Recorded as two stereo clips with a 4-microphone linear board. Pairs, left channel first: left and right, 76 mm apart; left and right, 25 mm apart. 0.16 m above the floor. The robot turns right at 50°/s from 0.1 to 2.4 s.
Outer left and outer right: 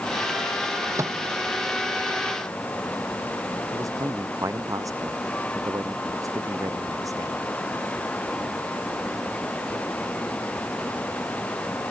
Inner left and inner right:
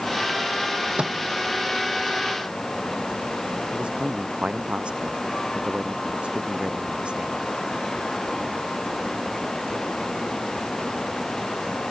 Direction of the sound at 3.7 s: 50° right (ahead or behind).